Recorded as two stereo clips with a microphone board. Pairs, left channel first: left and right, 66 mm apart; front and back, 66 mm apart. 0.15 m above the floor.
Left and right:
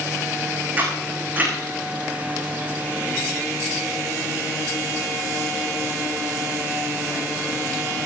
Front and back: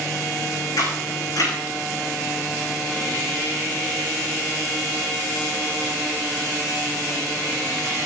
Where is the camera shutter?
25° right, 8.5 m.